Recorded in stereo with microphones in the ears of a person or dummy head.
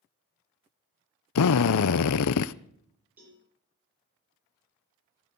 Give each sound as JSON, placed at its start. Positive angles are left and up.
{"t": 1.4, "sound": "a drill", "side_deg": 75, "distance_m": 0.5}
{"t": 3.2, "sound": "a cowbell", "side_deg": -10, "distance_m": 7.0}